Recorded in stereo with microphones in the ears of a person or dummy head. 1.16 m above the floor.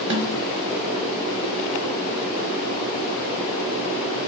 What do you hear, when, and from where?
0.1 s a snare drum: 25° right (ahead or behind), 0.7 m